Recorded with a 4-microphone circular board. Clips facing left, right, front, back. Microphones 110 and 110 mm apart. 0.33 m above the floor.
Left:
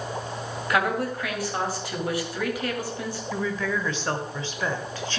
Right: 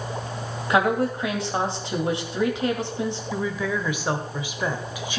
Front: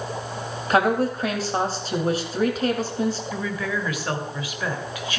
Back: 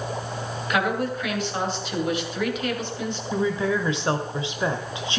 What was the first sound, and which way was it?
A woman speaking, 35° right.